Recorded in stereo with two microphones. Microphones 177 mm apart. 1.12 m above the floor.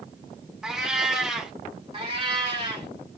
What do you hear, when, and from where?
0.6 s a cat meowing: 5° right (ahead or behind), 0.7 m
1.9 s a cat meowing: 30° right (ahead or behind), 1.0 m